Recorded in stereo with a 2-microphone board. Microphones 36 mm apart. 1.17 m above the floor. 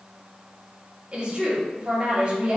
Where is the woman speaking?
25° right (ahead or behind), 1.7 m.